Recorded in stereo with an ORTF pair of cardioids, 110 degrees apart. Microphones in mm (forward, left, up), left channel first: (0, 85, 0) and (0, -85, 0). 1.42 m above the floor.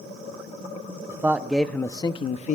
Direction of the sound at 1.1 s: 15° right.